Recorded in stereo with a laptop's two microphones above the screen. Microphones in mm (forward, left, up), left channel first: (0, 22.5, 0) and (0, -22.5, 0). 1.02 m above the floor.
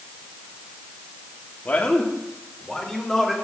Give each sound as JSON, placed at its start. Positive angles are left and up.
{"t": 1.6, "sound": "a man speaking", "side_deg": 45, "distance_m": 2.0}